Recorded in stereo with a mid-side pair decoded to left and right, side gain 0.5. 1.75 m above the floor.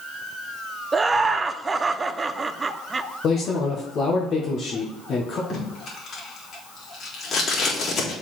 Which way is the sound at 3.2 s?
55° left.